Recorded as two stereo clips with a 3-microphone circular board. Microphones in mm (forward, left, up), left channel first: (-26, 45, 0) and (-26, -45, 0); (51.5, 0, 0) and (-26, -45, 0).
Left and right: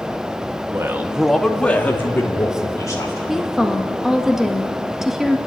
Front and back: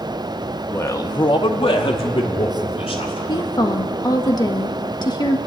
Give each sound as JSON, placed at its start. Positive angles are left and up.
{"t": 0.7, "sound": "a man speaking", "azimuth_deg": -40, "distance_m": 1.2}
{"t": 3.3, "sound": "a woman speaking", "azimuth_deg": -5, "distance_m": 1.5}